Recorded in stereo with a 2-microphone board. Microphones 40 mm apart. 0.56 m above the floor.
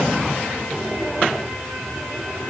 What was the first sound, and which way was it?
Only background noise.